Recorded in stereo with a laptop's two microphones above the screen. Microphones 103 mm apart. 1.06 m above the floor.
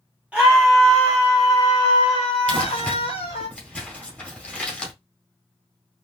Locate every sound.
0.3 s a scream: 15° right (ahead or behind), 0.8 m; by 3.5 s 80° left, 1.4 m
2.5 s crumpling: 10° left (ahead or behind), 1.7 m